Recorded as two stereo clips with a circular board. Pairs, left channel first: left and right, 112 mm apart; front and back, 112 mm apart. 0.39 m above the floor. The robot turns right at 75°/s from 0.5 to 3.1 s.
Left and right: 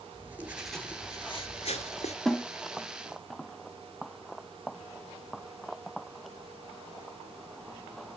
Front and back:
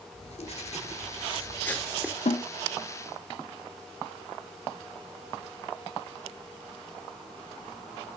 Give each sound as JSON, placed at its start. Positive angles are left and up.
{"t": 0.1, "sound": "writing", "azimuth_deg": -15, "distance_m": 1.9}
{"t": 2.2, "sound": "a snare drum", "azimuth_deg": 5, "distance_m": 0.8}